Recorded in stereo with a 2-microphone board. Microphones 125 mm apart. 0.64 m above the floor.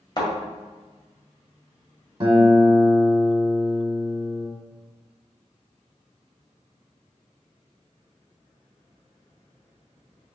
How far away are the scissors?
I don't hear scissors.